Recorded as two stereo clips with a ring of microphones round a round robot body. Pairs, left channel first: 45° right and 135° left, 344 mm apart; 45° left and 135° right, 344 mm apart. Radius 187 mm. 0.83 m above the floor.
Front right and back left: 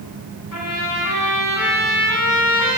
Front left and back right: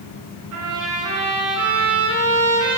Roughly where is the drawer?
I don't hear a drawer.